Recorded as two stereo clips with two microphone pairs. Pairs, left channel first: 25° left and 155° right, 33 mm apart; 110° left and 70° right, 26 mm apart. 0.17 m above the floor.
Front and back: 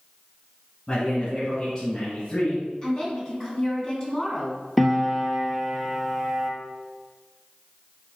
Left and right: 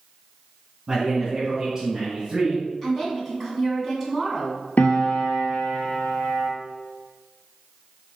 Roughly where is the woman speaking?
Ahead left.